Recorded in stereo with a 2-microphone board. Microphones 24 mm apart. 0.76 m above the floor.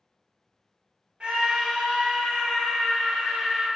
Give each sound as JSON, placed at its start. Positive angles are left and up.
{"t": 1.2, "sound": "a scream", "side_deg": -50, "distance_m": 0.6}